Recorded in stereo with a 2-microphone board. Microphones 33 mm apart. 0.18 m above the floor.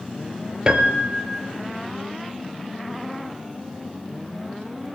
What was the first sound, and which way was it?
A piano, 25° right (ahead or behind).